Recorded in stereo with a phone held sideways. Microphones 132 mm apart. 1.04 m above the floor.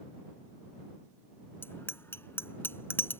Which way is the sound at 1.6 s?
15° left (ahead or behind).